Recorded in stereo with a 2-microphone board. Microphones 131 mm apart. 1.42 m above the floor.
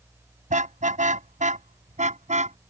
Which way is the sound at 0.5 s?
75° right (ahead or behind).